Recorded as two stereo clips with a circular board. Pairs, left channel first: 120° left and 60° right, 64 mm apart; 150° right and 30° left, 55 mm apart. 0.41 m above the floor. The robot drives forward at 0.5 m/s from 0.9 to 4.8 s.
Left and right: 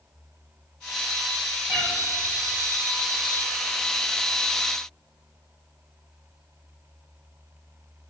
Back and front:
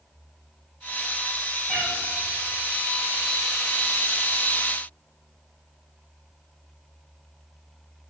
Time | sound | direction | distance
1.7 | a cat meowing | 70° right | 4.5 m